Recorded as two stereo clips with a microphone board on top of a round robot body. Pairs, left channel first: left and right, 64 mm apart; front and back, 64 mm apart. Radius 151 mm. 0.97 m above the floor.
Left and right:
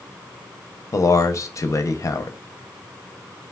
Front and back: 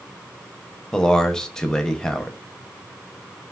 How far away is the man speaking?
About 0.7 m.